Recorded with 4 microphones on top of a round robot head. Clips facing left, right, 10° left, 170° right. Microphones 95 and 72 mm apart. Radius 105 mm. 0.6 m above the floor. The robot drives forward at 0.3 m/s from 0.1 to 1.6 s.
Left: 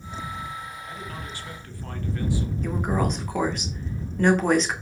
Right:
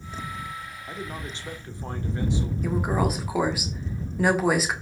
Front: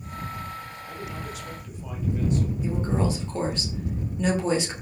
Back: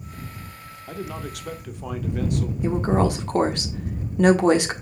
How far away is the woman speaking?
About 1.8 m.